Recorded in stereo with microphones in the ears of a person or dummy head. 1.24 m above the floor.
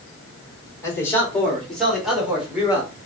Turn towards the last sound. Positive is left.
turn(degrees=-10)  # may be behind; listen again after turning